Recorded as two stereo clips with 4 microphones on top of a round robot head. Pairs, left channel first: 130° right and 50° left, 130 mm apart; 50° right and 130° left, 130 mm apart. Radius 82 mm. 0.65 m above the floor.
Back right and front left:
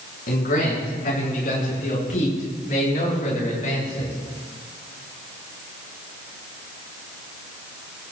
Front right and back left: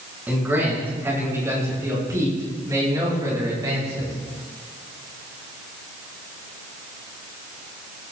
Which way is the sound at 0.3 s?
150° right.